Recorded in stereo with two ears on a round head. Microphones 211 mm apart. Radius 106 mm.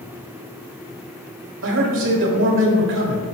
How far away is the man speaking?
About 1.4 m.